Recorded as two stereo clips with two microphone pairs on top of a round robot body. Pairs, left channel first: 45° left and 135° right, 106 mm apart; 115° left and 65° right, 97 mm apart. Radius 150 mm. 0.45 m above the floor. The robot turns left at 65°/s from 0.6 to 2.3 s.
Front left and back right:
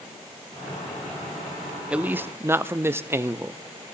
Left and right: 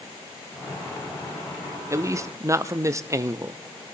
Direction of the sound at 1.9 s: 50° right.